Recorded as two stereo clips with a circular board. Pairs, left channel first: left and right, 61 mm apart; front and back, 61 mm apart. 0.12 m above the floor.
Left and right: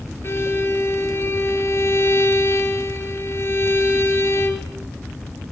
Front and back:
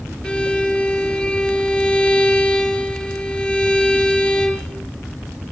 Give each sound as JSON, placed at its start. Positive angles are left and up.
{"t": 0.2, "sound": "a violin", "azimuth_deg": 65, "distance_m": 2.0}